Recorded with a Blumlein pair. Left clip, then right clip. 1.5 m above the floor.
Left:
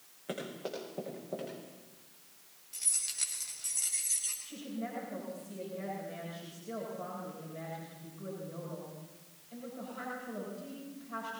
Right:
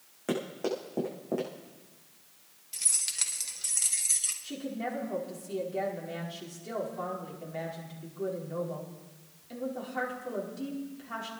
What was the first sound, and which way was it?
Running footsteps, 50° right.